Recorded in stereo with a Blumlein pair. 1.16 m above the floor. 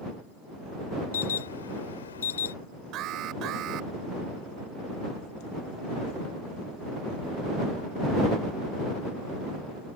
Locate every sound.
1.1 s an alarm: 65° left
2.9 s an alarm: 35° right